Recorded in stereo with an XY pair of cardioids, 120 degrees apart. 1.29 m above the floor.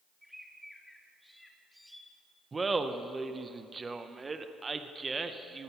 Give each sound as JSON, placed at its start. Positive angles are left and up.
{"t": 0.2, "sound": "a bird", "azimuth_deg": 0, "distance_m": 1.6}
{"t": 2.5, "sound": "laughter", "azimuth_deg": -25, "distance_m": 0.7}